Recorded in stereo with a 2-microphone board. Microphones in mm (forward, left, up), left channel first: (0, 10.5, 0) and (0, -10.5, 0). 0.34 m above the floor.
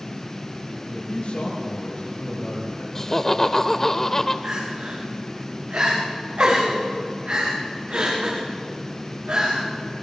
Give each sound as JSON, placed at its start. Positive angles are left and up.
{"t": 0.8, "sound": "a man speaking", "side_deg": 60, "distance_m": 8.0}
{"t": 3.0, "sound": "laughter", "side_deg": 20, "distance_m": 1.0}
{"t": 4.4, "sound": "crying", "side_deg": -65, "distance_m": 7.5}